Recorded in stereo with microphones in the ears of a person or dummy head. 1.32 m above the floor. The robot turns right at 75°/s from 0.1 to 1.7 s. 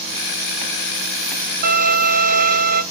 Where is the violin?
60° right (ahead or behind), 2.5 m; by 2.8 s 55° right (ahead or behind), 2.5 m.